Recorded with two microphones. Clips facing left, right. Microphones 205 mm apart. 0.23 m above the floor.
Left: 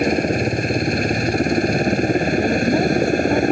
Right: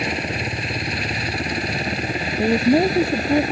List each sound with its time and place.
0.0 s a helicopter: 45° left (ahead or behind)
2.4 s a woman speaking: 20° right (ahead or behind)